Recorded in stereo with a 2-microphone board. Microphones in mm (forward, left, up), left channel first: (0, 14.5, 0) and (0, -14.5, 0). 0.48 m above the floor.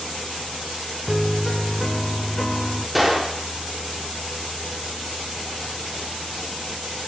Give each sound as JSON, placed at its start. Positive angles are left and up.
{"t": 1.1, "sound": "a piano", "side_deg": 10, "distance_m": 0.7}
{"t": 3.0, "sound": "a gunshot", "side_deg": -5, "distance_m": 1.2}